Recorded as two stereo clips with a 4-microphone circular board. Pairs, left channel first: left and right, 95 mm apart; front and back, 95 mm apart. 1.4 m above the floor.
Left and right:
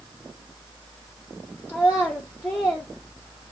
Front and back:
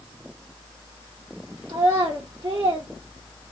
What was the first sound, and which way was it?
A child speaking, 150° left.